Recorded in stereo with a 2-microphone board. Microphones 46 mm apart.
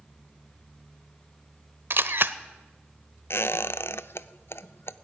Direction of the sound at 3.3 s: 65° left (ahead or behind).